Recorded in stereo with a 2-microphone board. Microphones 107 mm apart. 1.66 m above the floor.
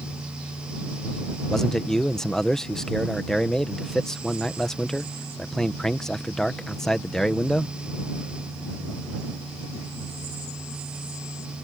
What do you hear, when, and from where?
1.5 s a man speaking: 5° left (ahead or behind)